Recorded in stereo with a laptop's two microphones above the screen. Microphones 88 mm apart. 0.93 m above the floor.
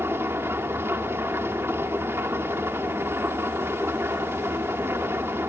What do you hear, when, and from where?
0.0 s an engine running: 30° right (ahead or behind), 2.5 m